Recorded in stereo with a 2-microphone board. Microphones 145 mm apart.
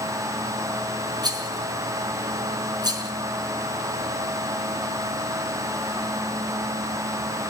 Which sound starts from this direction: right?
A rattle, at 1.2 s.